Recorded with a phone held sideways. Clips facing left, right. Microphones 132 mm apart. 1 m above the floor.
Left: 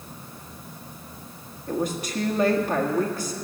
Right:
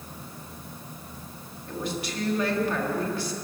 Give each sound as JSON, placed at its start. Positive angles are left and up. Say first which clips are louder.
{"t": 1.7, "sound": "a woman speaking", "louder": "left 5 dB", "side_deg": 45, "distance_m": 1.6}